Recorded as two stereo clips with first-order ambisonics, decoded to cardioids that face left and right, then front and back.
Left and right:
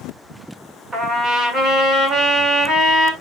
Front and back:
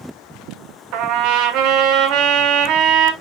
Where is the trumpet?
160° right, 2.5 m.